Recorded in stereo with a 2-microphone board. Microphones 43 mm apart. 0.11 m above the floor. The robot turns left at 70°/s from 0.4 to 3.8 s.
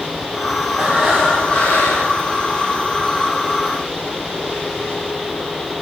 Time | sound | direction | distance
0.8 | breathing | 155° right | 3.5 m